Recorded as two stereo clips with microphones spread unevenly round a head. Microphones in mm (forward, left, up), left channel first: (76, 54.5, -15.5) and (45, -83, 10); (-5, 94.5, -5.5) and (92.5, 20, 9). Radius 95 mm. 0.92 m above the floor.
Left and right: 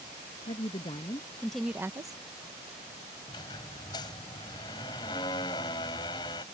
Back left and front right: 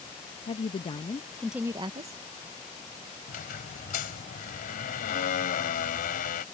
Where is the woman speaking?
125° left; by 2.2 s 35° right.